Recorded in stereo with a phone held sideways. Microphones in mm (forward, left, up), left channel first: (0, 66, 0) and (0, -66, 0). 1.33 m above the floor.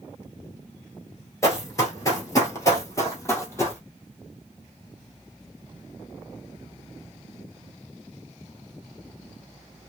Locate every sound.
1.4 s running footsteps: 25° left (ahead or behind), 1.4 m; by 3.8 s 20° left (ahead or behind), 2.0 m